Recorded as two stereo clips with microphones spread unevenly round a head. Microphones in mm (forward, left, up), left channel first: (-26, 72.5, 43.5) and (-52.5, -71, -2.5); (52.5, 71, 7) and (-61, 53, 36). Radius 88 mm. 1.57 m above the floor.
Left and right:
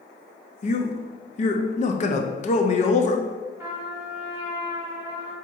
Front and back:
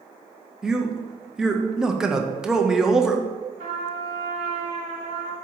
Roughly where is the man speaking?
Left.